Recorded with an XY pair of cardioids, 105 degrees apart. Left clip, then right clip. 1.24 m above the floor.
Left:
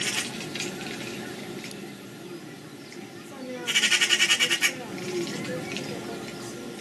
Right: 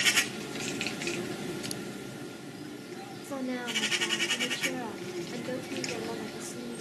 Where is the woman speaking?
40° right, 2.5 m.